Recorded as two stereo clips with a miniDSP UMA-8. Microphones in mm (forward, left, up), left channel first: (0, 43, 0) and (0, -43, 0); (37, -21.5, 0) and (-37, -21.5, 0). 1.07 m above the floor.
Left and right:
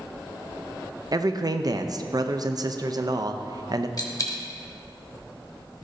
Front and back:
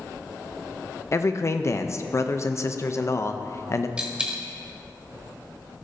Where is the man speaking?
50° right, 0.5 m.